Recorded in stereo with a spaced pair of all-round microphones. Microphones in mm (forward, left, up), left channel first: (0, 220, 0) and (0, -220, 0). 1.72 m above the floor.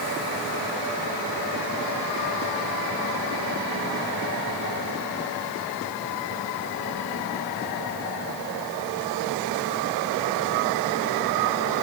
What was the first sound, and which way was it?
Only background noise.